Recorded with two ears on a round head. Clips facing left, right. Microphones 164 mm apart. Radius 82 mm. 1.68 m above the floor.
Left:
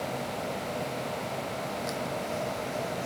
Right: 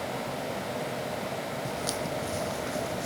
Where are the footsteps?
35° right (ahead or behind); by 3.1 s 45° right (ahead or behind).